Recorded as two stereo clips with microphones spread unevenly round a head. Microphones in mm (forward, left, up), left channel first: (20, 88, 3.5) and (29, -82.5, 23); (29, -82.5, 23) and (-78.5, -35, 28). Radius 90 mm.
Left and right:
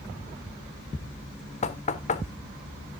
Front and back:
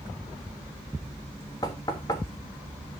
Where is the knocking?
45° left, 1.2 m.